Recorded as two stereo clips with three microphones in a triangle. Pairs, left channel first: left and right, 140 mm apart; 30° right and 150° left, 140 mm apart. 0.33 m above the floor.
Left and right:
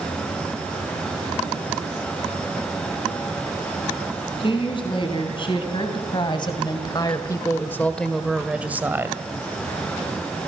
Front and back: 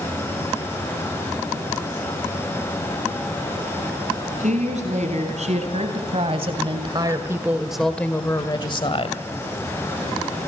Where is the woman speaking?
135° left, 4 m; by 9.2 s 25° right, 1.9 m.